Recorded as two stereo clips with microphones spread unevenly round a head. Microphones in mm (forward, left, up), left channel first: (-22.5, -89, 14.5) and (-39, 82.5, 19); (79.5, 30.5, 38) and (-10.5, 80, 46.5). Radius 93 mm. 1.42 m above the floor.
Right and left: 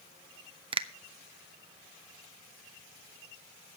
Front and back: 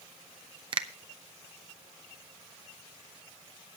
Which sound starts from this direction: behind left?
A finger snap, at 0.7 s.